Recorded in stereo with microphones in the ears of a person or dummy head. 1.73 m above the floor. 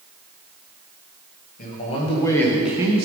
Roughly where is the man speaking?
Left.